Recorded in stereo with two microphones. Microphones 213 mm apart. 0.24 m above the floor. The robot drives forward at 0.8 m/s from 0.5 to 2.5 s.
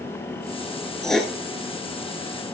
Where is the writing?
Centre (ahead or behind), 1.4 m.